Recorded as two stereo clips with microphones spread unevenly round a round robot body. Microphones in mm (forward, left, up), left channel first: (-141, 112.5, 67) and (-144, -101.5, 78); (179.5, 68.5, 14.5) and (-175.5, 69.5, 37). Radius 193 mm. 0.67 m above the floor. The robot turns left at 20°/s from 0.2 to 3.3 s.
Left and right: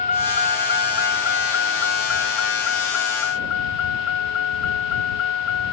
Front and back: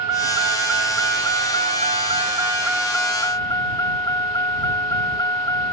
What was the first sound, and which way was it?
A vehicle, 145° left.